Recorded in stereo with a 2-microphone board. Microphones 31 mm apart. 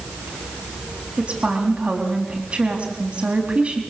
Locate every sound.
1.2 s a woman speaking: 40° right (ahead or behind), 3.5 m